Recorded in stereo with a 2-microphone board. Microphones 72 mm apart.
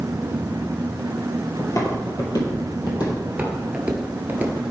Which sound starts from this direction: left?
Footsteps, at 1.6 s.